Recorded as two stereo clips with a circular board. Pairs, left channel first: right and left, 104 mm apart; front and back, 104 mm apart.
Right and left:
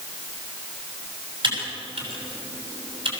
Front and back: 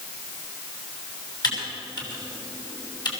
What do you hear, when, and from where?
1.4 s typing on a keyboard: 50° left, 6.5 m